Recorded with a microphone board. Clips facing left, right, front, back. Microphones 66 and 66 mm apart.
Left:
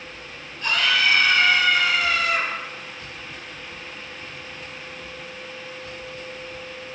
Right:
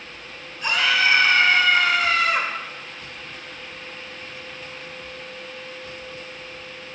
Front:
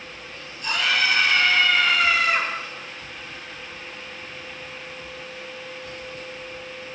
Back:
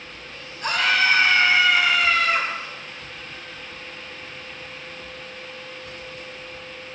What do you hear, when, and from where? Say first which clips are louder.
0.6 s a scream: right 1 dB, back 3 dB; 165° right, 1.9 m; by 2.5 s 65° right, 1.8 m